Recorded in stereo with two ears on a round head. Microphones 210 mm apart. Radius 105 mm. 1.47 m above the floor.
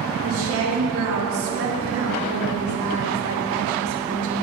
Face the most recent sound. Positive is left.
turn(degrees=-65)  # may be behind; listen again after turning